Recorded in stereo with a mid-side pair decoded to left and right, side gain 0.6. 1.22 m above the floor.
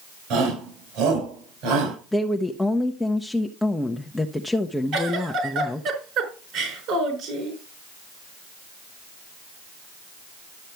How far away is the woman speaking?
About 0.9 m.